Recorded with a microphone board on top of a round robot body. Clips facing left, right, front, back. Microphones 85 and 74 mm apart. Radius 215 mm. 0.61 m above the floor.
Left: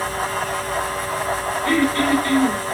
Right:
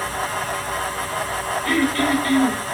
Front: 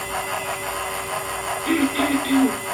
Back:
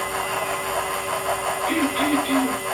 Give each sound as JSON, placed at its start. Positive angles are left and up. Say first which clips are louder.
{"t": 1.6, "sound": "throat clearing", "louder": "left 2 dB, front 2 dB", "azimuth_deg": 25, "distance_m": 5.5}